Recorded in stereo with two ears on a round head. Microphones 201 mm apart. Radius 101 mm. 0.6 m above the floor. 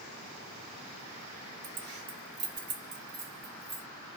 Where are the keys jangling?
40° right (ahead or behind), 0.7 m.